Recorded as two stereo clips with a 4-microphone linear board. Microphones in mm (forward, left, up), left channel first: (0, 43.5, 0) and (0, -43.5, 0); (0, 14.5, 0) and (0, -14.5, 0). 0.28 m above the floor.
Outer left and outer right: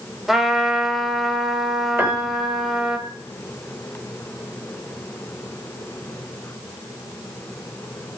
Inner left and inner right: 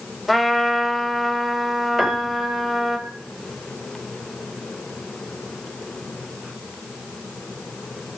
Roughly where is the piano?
Right.